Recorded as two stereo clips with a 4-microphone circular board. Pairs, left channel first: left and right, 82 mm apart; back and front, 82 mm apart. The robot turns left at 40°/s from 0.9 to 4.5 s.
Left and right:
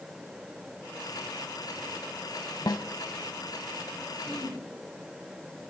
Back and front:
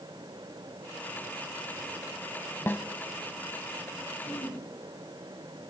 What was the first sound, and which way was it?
A snare drum, 120° left.